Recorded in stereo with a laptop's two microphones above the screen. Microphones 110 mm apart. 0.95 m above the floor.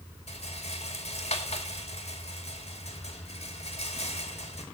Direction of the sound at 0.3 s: 70° left (ahead or behind).